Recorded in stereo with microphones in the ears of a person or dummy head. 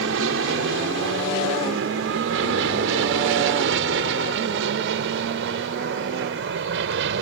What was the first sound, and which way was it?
An aircraft, 75° right (ahead or behind).